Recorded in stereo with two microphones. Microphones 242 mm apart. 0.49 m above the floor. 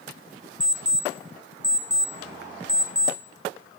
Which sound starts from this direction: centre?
An alarm clock, at 0.6 s.